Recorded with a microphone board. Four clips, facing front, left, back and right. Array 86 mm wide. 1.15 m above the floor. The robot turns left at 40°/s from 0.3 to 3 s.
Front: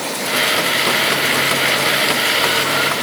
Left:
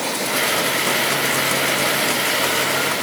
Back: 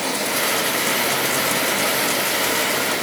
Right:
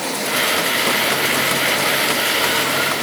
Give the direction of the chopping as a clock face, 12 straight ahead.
No chopping in this recording.